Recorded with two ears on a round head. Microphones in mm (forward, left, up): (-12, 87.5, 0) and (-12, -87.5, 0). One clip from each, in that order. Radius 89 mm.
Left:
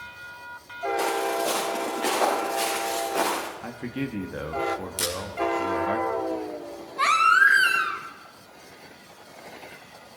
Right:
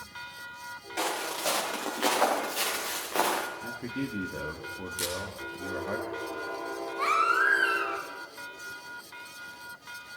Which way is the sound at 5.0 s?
15° left (ahead or behind).